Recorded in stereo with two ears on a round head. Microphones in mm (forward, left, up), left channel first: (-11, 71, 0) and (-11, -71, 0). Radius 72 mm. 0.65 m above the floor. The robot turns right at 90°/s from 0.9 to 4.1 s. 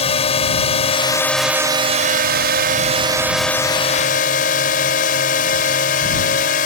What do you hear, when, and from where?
0.0 s a drone: 135° left; by 6.7 s 65° left